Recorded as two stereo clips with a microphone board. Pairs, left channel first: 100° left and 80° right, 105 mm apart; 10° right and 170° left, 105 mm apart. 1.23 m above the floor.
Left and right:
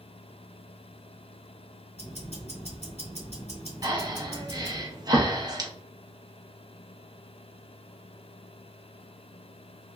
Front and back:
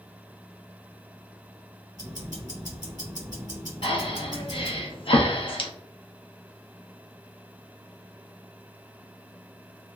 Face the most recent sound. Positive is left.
turn(degrees=-35)